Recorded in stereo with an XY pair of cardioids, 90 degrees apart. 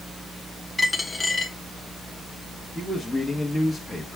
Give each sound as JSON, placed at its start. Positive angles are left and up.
{"t": 0.8, "sound": "a dropped coin", "azimuth_deg": 25, "distance_m": 1.1}
{"t": 2.8, "sound": "a man speaking", "azimuth_deg": 5, "distance_m": 1.4}